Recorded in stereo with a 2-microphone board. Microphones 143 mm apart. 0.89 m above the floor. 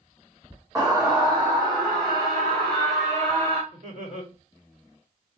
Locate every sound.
0.8 s a scream: 25° right (ahead or behind), 1.3 m; by 3.6 s 55° right (ahead or behind), 2.5 m
3.7 s laughter: 65° right (ahead or behind), 2.5 m